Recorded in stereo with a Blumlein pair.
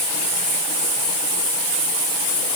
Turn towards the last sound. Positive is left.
No sound to turn to.